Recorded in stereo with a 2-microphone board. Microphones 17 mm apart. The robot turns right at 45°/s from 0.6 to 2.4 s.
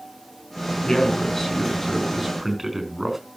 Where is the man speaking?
120° left, 4 m; by 3.2 s 170° right, 4 m.